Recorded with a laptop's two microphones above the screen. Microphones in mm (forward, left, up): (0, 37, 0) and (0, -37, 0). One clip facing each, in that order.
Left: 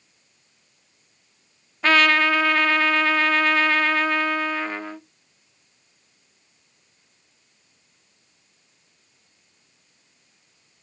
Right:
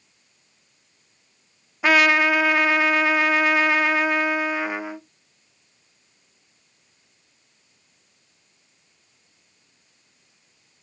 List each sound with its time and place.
1.8 s a trumpet: 10° right (ahead or behind), 0.6 m